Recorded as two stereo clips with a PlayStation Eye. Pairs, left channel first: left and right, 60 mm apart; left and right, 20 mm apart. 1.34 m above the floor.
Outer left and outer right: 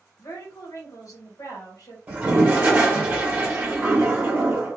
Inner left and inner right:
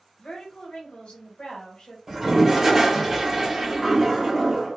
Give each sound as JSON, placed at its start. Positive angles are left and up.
{"t": 0.2, "sound": "a woman speaking", "side_deg": 65, "distance_m": 1.1}
{"t": 2.1, "sound": "a toilet flushing", "side_deg": -25, "distance_m": 1.1}